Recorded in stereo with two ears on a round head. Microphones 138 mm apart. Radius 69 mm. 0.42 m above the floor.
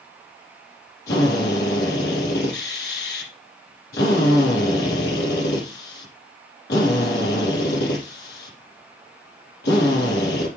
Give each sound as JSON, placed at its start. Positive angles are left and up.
{"t": 1.1, "sound": "a drill", "side_deg": 75, "distance_m": 6.0}